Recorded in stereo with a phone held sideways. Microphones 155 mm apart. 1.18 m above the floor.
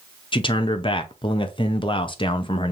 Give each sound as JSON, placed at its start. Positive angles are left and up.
{"t": 0.3, "sound": "a man speaking", "side_deg": 30, "distance_m": 0.5}